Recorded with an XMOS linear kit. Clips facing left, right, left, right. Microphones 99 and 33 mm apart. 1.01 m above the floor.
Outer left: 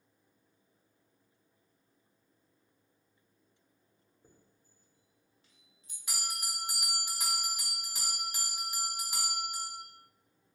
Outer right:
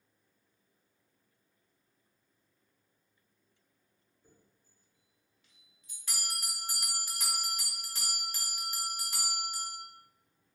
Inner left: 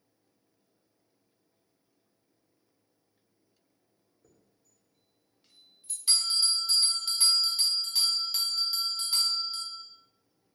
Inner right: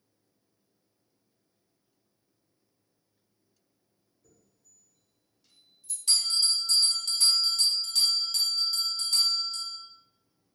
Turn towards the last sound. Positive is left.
turn(degrees=15)  # may be behind; listen again after turning